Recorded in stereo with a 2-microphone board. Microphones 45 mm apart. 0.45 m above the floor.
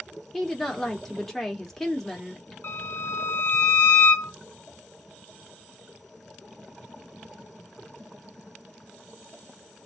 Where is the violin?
70° left (ahead or behind), 1.6 m.